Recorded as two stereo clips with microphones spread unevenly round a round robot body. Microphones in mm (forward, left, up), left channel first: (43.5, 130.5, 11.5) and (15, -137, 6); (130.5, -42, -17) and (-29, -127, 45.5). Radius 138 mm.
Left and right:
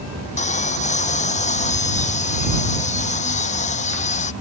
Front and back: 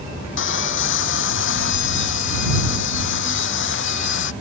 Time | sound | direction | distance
0.4 | sawing | 20° left | ?